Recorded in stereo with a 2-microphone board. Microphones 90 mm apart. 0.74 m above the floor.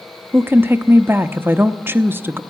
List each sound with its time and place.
0.3 s a woman speaking: 25° right (ahead or behind), 0.6 m